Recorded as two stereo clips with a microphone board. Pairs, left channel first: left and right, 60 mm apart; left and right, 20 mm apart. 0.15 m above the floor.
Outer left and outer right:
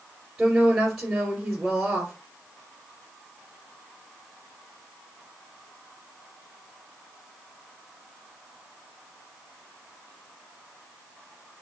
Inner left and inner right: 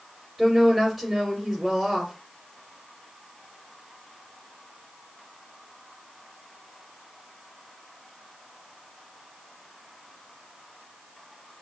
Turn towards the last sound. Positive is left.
turn(degrees=-20)  # may be behind; listen again after turning